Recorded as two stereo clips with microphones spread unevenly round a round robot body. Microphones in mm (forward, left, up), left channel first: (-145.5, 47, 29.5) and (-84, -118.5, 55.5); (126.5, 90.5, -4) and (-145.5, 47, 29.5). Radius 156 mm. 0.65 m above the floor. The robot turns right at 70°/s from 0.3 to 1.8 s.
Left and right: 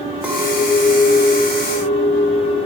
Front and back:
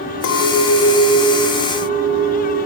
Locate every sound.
0.2 s a clink: 20° left, 0.6 m; by 2.6 s 125° left, 0.6 m